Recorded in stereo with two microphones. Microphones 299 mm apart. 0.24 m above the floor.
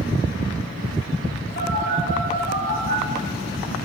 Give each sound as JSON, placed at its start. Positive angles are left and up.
{"t": 1.6, "sound": "a phone buzzing", "side_deg": 35, "distance_m": 7.0}